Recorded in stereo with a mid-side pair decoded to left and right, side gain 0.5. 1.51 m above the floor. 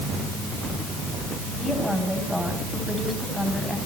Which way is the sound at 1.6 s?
Straight ahead.